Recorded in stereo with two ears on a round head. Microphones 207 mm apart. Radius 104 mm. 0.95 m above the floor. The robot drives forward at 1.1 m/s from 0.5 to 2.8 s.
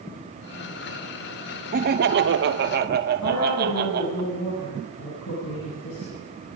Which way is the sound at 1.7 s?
40° right (ahead or behind).